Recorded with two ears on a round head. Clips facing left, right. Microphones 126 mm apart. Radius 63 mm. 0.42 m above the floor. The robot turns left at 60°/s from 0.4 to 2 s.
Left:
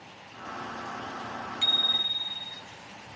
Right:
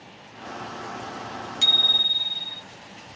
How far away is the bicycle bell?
About 2.5 m.